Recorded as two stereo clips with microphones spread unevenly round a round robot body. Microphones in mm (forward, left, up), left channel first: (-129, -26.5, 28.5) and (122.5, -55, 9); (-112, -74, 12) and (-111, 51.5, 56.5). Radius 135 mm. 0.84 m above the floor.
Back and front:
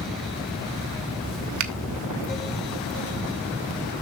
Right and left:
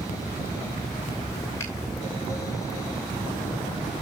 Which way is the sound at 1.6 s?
20° right.